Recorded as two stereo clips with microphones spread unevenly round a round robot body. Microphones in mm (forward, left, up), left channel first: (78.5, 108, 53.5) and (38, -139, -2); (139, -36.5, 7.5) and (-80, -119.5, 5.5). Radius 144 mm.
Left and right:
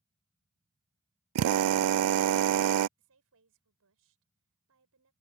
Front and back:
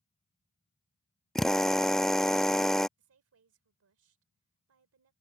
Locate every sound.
1.4 s a drill: 70° right
3.0 s a woman speaking: 140° right